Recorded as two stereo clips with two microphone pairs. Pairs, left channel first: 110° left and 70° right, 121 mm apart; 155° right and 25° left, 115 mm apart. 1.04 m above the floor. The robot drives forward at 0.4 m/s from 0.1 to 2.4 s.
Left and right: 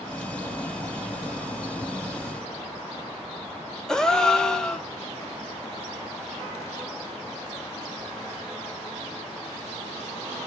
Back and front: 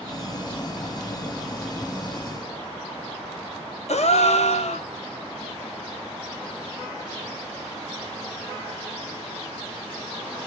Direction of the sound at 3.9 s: 170° right.